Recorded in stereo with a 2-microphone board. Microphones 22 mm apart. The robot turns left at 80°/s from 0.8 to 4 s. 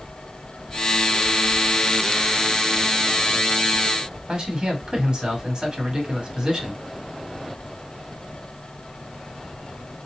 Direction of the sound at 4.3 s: 40° right (ahead or behind).